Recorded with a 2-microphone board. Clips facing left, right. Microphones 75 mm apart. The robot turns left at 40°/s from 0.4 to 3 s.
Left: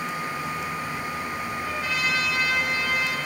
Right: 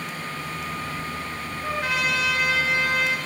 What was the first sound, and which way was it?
A trumpet, 55° right.